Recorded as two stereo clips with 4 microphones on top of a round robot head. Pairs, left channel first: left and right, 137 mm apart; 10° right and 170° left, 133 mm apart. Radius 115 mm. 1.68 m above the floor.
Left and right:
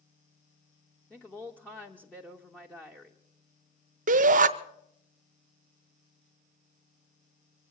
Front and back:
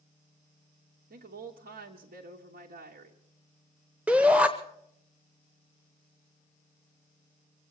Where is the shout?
105° right, 0.7 m.